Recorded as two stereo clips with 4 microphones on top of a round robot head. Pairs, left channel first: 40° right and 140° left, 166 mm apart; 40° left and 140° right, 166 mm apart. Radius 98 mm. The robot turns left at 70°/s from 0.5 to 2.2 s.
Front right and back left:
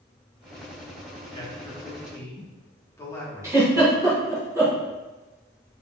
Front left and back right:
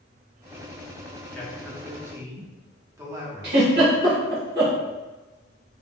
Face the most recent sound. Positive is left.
turn(degrees=-145)